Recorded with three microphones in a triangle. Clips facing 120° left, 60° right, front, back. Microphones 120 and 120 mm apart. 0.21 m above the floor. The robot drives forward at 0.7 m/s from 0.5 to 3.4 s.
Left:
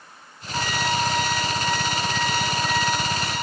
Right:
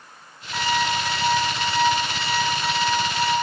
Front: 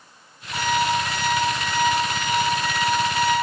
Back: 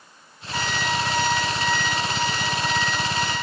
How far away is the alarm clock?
About 6 m.